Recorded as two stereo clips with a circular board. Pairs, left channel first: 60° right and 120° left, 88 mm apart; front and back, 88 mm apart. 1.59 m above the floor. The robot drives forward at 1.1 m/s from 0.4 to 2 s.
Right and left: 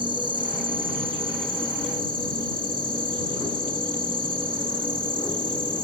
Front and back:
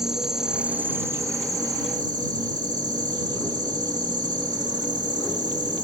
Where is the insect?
95° left; by 5.8 s 140° left.